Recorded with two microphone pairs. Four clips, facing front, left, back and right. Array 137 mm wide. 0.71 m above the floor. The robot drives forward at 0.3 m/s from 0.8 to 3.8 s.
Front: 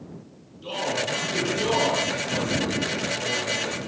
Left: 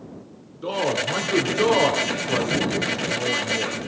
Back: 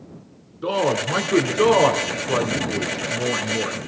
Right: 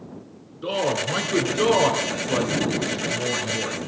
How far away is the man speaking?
About 2 m.